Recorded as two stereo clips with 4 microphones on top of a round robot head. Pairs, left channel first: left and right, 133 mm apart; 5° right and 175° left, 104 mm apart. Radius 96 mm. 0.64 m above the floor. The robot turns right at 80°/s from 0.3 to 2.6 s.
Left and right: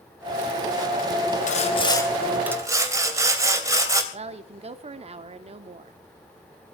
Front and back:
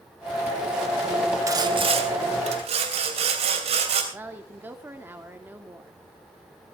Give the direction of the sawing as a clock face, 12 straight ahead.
8 o'clock.